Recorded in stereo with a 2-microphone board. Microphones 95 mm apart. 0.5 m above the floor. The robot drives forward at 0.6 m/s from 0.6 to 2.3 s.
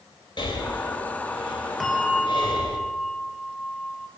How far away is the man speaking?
No man speaking in this recording.